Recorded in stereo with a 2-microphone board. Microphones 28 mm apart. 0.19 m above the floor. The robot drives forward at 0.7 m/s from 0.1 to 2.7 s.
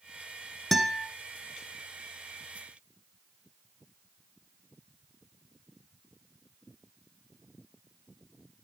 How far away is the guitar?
About 1.6 m.